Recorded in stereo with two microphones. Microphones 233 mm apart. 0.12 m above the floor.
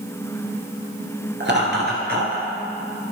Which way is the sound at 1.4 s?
50° right (ahead or behind).